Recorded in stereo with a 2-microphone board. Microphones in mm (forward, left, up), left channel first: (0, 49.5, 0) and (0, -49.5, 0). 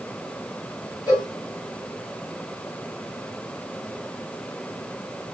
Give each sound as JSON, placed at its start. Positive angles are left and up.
{"t": 1.1, "sound": "a cowbell", "side_deg": 40, "distance_m": 2.5}